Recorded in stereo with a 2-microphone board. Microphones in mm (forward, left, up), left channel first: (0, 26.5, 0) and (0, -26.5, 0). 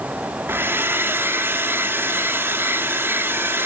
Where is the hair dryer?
45° right (ahead or behind), 1.6 m.